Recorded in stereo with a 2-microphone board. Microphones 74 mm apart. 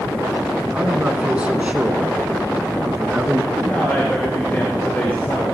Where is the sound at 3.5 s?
25° left (ahead or behind), 3 m.